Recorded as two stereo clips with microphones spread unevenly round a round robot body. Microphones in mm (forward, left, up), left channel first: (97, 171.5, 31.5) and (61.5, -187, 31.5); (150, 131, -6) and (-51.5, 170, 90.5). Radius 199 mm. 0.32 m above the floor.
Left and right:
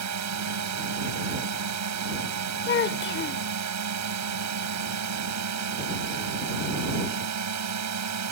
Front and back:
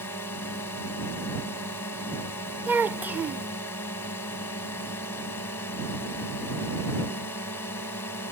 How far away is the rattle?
I don't hear a rattle.